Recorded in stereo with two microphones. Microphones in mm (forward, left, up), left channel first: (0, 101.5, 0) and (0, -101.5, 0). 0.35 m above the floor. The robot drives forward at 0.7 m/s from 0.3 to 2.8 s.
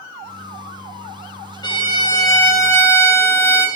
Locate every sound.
1.6 s a violin: 20° left (ahead or behind), 0.9 m; by 3.7 s 15° left (ahead or behind), 1.3 m